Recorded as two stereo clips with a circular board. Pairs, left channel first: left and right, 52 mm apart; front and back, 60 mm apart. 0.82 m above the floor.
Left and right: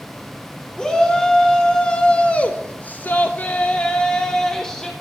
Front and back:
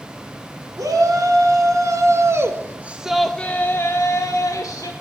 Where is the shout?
170° left, 2 m; by 4.9 s 10° left, 1.6 m.